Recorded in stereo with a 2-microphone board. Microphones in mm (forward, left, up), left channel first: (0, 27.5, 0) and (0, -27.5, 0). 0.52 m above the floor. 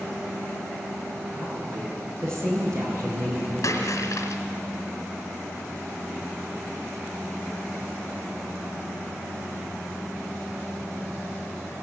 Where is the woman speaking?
65° right (ahead or behind), 8.5 m; by 3.5 s 55° right (ahead or behind), 7.5 m.